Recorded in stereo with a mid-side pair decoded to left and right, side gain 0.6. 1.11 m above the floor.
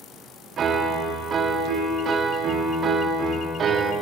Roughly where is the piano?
Ahead right.